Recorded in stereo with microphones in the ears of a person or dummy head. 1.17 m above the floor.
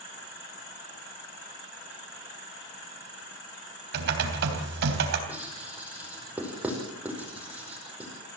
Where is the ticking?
I don't hear ticking.